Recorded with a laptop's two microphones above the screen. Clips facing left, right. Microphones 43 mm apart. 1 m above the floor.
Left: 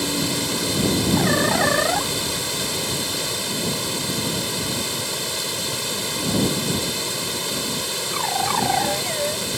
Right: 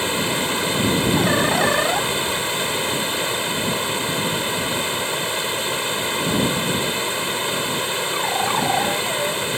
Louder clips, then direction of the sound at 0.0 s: Right 2 dB; 30° right (ahead or behind).